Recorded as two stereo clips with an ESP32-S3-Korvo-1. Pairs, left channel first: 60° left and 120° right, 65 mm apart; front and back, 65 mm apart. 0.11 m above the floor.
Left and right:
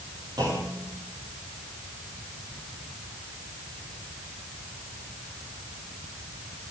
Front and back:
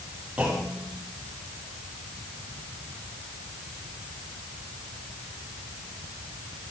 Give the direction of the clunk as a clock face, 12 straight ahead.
3 o'clock.